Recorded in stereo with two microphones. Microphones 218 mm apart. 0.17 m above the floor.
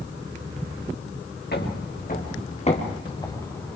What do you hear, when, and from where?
1.5 s footsteps: 50° left (ahead or behind), 4 m; by 3.8 s 5° left (ahead or behind), 3 m